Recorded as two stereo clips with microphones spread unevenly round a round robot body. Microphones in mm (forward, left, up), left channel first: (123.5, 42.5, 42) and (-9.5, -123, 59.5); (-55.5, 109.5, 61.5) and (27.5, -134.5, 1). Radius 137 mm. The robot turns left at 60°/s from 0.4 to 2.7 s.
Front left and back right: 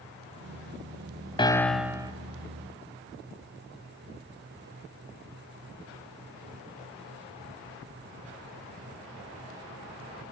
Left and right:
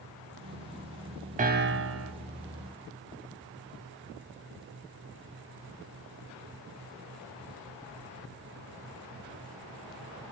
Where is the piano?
15° right, 1.1 m; by 2.1 s 60° right, 1.1 m.